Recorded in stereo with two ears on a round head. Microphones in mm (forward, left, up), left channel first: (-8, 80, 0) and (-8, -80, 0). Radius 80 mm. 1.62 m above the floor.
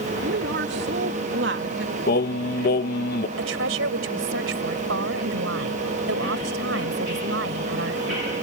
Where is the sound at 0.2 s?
65° right (ahead or behind).